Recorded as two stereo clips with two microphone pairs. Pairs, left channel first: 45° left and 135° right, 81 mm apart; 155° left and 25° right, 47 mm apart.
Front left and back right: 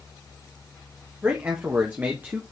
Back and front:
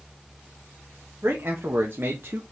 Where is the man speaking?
70° right, 2 m; by 2.4 s 65° right, 1.1 m.